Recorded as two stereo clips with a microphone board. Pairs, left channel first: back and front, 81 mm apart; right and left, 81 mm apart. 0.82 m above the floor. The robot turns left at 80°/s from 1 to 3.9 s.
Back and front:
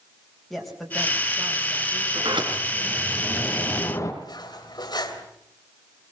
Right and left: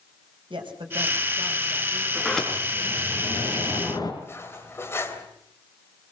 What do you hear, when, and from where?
0.5 s a woman speaking: 95° left, 4 m; by 2.0 s 10° left, 4 m
2.1 s a sliding door: 15° left, 3.5 m; by 4.1 s 125° right, 3.5 m
4.2 s cutlery clinking: 150° right, 3 m